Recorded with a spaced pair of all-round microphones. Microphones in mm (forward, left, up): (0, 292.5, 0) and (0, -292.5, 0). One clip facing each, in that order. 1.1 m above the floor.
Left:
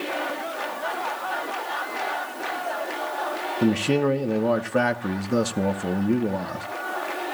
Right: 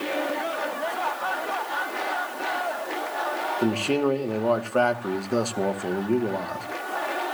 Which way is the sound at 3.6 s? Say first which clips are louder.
Left 2 dB; 45° left (ahead or behind).